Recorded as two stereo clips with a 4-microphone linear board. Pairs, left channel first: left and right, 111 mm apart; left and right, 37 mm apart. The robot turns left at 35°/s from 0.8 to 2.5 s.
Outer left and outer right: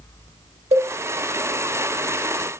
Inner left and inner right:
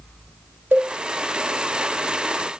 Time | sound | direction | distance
0.7 | a cowbell | 70° right (ahead or behind) | 6.5 m